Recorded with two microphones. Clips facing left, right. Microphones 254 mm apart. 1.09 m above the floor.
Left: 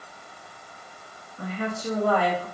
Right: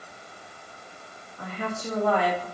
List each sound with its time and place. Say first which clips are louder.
1.4 s a woman speaking: left 3 dB; 40° left (ahead or behind), 1.6 m; by 2.5 s 5° right (ahead or behind), 2.5 m